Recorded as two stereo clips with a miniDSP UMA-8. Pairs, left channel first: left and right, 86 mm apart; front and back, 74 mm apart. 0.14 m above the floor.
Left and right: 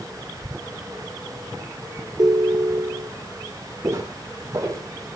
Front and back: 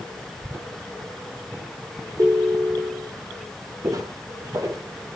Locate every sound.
2.2 s a ringtone: 130° right, 1.9 m
3.8 s footsteps: 140° right, 3.5 m